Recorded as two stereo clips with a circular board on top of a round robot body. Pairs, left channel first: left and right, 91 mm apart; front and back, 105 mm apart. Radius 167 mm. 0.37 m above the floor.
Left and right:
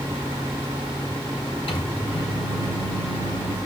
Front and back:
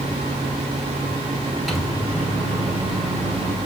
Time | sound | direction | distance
1.7 | a microwave | 90° left | 3 m